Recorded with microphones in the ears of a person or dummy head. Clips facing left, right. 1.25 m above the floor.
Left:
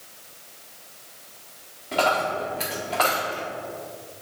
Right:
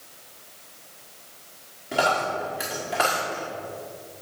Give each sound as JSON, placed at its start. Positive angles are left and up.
{"t": 1.9, "sound": "a dropped coin", "side_deg": -15, "distance_m": 1.7}